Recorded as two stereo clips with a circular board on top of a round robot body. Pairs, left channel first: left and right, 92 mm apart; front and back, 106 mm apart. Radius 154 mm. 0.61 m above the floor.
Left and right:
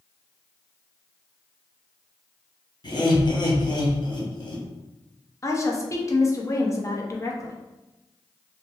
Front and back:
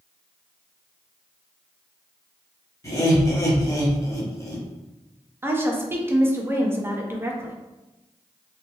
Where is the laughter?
60° left, 1.4 m.